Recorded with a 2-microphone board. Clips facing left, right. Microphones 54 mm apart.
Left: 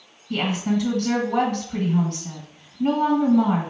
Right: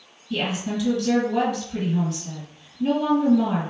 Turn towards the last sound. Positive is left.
turn(degrees=50)  # may be behind; listen again after turning